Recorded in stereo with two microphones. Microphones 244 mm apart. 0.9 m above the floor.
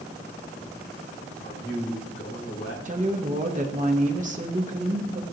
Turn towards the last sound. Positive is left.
turn(degrees=-30)  # may be behind; listen again after turning